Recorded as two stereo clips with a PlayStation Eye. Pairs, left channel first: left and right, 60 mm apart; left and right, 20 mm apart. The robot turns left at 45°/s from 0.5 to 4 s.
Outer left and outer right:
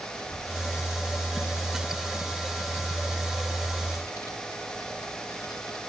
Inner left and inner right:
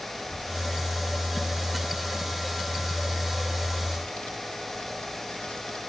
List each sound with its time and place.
0.1 s a child speaking: 60° right (ahead or behind), 3 m; by 5.8 s 80° left, 3 m